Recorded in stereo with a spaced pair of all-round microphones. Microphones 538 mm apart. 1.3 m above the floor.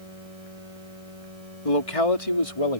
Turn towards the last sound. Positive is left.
turn(degrees=80)